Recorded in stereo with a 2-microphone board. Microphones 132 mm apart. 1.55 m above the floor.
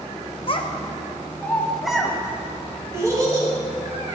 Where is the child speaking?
45° left (ahead or behind), 0.9 m; by 4.2 s 35° right (ahead or behind), 1.9 m.